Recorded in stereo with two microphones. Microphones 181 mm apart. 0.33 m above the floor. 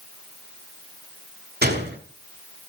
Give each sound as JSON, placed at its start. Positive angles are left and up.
{"t": 1.6, "sound": "a gunshot", "side_deg": -70, "distance_m": 2.0}